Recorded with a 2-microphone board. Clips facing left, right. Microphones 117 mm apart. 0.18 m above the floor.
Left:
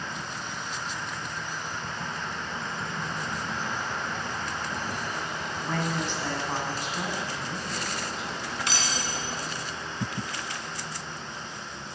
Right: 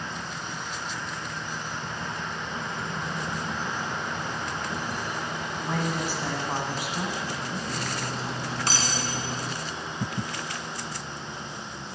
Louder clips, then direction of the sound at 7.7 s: Right 2 dB; 40° right (ahead or behind).